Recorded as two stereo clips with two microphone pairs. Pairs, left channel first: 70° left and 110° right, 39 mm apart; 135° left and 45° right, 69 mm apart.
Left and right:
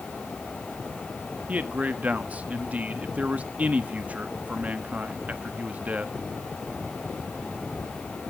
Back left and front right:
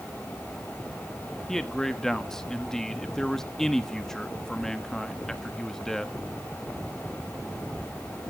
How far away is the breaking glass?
I don't hear breaking glass.